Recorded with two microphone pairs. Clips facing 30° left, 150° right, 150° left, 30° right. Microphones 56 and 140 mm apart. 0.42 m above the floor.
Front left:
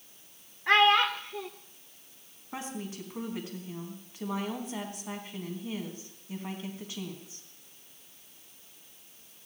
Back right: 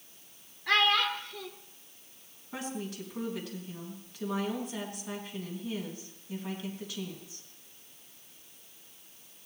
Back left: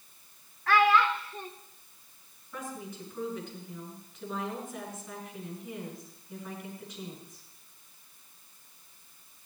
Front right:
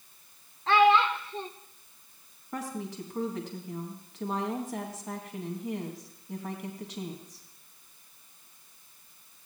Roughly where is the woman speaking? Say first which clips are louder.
Back right 1 dB, front right 4 dB; ahead right.